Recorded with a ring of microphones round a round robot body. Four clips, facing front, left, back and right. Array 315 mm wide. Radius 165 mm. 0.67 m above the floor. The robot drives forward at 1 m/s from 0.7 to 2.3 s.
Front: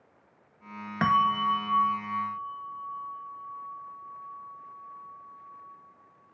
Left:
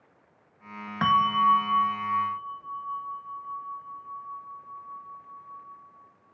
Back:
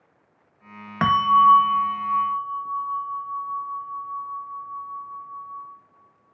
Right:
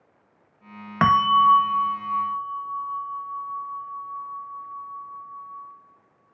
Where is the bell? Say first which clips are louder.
Right 5 dB, back 8 dB; 115° right, 0.5 m; by 5.7 s 170° right, 1.5 m.